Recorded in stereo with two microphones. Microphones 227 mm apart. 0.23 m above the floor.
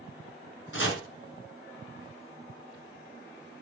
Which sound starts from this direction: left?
Chopping, at 0.7 s.